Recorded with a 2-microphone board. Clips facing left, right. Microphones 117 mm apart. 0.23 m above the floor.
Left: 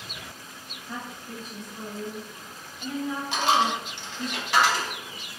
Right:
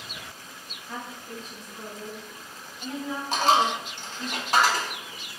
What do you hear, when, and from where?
0.9 s a woman speaking: 10° left (ahead or behind), 1.4 m; by 4.3 s 15° left (ahead or behind), 1.9 m
3.3 s a dropped coin: 45° right (ahead or behind), 0.6 m